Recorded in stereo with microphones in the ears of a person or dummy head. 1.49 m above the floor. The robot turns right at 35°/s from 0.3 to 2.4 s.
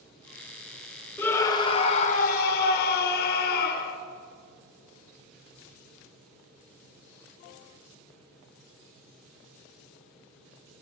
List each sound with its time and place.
1.2 s a scream: 5° left, 1.0 m; by 4.0 s 50° left, 1.0 m